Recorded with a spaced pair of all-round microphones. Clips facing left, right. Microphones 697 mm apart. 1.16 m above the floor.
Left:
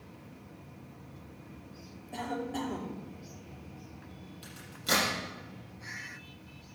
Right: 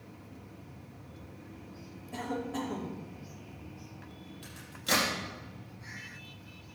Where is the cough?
40° right (ahead or behind), 2.5 m.